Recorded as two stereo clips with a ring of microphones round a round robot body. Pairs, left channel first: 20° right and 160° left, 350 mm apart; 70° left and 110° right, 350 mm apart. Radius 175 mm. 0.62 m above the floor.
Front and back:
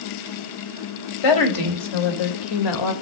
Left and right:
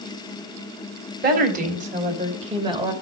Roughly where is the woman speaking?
Ahead right.